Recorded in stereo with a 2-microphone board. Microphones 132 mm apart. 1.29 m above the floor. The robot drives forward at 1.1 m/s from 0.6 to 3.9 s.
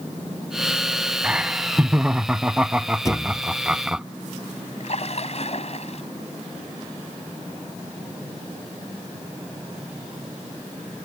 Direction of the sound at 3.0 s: 25° left (ahead or behind).